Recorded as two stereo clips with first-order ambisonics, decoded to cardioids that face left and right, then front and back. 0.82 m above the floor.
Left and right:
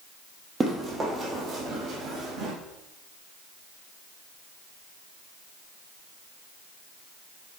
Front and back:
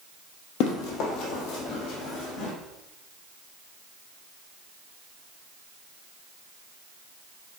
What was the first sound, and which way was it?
Running footsteps, 15° right.